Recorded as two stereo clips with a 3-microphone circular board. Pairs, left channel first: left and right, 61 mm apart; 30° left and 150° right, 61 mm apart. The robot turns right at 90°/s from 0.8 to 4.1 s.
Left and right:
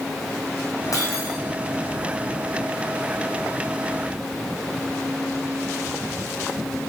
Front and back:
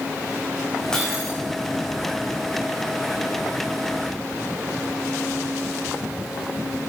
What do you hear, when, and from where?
0.9 s breaking glass: 110° left, 5 m; by 1.4 s 150° left, 5 m